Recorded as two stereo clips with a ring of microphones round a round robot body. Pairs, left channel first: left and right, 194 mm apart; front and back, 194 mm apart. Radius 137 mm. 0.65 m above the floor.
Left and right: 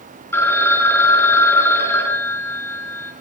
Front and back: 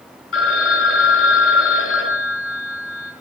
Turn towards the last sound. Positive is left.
turn(degrees=10)